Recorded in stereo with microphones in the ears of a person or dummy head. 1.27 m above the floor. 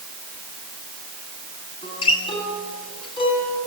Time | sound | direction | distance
1.8 | a guitar | 25° left (ahead or behind) | 9 m